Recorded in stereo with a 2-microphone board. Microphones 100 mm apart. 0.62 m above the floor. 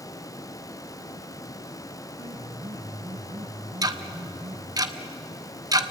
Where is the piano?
75° right (ahead or behind), 3 m.